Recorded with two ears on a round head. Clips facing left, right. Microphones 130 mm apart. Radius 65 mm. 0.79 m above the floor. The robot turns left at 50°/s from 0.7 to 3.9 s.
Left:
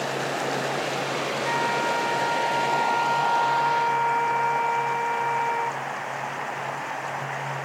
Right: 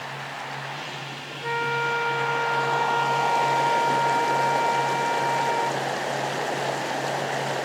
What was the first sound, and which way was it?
Running water, 120° left.